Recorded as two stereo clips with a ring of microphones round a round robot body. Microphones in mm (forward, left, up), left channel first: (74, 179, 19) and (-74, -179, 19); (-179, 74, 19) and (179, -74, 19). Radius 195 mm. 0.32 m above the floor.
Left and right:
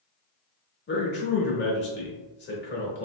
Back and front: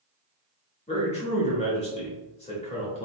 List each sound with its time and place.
0.9 s a man speaking: 100° left, 1.0 m